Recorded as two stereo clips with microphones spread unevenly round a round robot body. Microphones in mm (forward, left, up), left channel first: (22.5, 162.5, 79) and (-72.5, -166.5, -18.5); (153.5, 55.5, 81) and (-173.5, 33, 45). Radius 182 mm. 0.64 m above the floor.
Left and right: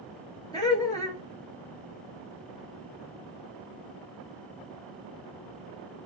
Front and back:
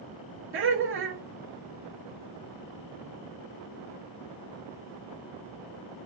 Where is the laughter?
165° left, 1.0 m.